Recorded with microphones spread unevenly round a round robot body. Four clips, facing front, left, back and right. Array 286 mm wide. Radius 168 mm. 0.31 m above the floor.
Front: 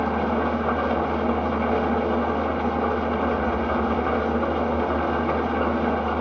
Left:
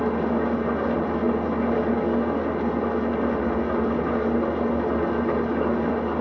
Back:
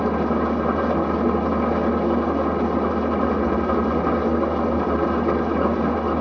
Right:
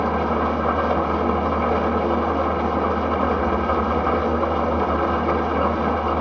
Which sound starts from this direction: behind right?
An engine running, at 0.0 s.